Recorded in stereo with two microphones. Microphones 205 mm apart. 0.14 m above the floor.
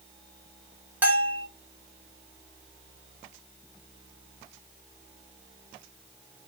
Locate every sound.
1.0 s a bell: 10° right (ahead or behind), 1.3 m